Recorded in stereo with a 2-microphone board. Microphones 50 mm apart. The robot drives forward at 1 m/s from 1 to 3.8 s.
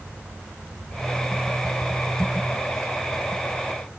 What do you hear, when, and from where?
0.0 s an insect: 40° right (ahead or behind), 7.5 m; by 4.0 s 30° right (ahead or behind), 10 m